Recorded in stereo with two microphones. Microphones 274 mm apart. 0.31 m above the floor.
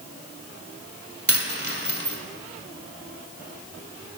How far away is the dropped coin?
About 1.0 m.